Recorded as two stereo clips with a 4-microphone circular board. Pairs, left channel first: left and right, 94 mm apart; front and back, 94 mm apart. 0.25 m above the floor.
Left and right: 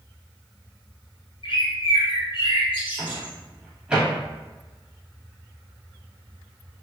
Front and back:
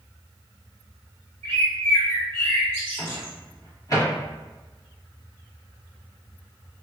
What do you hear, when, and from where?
1.4 s a bird: 65° left, 1.1 m
3.0 s a microwave: 15° right, 1.0 m